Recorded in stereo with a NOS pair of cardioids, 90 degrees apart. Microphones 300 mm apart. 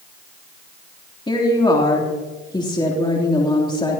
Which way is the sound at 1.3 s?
15° left.